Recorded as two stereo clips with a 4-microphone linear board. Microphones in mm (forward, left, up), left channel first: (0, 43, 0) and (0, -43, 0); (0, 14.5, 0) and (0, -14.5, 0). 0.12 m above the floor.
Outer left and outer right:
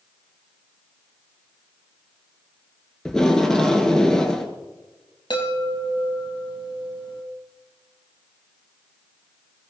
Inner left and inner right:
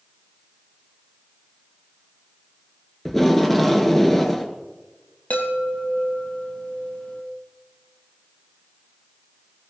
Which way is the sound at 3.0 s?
5° left (ahead or behind).